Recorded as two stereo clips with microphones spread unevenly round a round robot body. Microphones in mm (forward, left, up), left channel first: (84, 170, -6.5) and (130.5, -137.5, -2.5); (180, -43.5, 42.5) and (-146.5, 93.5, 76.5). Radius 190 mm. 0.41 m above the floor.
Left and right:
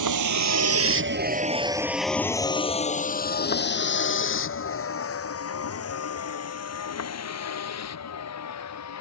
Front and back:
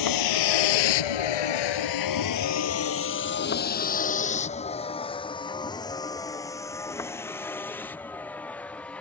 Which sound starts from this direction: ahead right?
A vehicle, at 0.0 s.